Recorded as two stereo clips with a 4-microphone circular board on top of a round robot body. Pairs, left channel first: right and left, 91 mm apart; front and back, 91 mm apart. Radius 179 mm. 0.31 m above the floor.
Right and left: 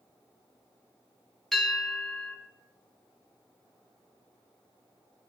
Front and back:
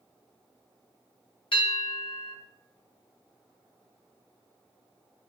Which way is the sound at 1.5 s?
5° right.